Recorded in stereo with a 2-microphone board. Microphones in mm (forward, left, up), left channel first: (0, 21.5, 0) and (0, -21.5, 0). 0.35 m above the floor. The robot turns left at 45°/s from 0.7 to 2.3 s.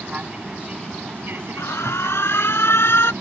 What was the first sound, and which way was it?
An aircraft, 30° right.